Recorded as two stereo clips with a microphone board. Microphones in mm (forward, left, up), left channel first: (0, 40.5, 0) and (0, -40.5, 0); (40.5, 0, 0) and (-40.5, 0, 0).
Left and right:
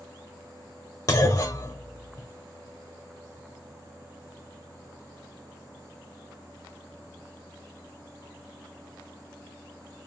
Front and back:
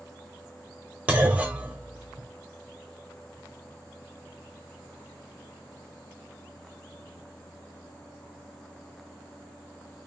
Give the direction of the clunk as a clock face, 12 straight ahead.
8 o'clock.